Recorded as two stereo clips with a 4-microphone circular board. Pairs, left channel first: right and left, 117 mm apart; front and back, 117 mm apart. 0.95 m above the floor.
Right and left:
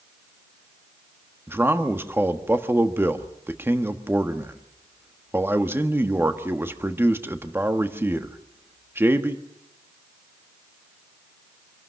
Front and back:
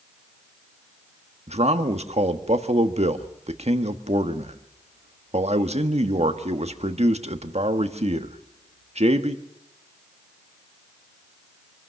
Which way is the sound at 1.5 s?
160° left.